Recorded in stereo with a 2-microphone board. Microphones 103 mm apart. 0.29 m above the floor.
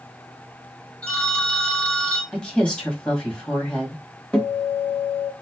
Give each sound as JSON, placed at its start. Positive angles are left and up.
{"t": 1.0, "sound": "a phone ringing", "side_deg": 15, "distance_m": 1.5}
{"t": 2.3, "sound": "a woman speaking", "side_deg": 10, "distance_m": 1.4}
{"t": 4.3, "sound": "a guitar", "side_deg": 10, "distance_m": 1.1}